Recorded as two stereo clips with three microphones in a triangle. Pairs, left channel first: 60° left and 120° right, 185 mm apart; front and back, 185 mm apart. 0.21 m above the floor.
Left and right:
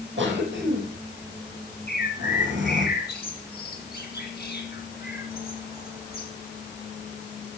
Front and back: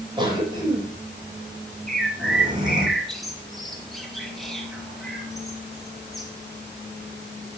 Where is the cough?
115° right, 9 m.